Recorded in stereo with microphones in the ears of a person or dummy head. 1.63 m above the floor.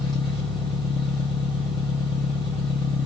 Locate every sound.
0.0 s an engine running: 5° left (ahead or behind), 1.7 m